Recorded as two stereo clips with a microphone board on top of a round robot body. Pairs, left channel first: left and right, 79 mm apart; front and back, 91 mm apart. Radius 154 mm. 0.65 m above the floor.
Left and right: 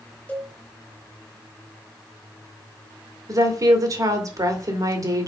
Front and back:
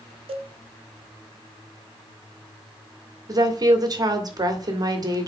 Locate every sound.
0.3 s a cowbell: 160° left, 1.1 m
3.3 s a woman speaking: 135° right, 1.9 m